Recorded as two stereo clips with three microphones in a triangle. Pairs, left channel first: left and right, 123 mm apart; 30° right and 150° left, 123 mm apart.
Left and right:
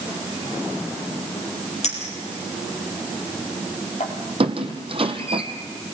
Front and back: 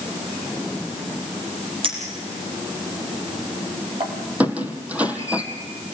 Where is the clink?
110° left, 4.5 m.